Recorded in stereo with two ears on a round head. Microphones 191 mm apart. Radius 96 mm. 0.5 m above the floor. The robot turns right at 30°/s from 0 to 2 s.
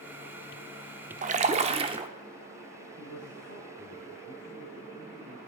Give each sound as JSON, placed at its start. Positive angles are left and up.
{"t": 1.2, "sound": "a splash", "side_deg": -35, "distance_m": 0.8}
{"t": 3.0, "sound": "a man speaking", "side_deg": -50, "distance_m": 3.0}